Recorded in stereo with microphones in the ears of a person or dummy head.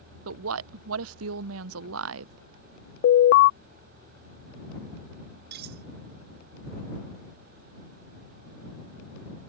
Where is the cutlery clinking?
60° right (ahead or behind).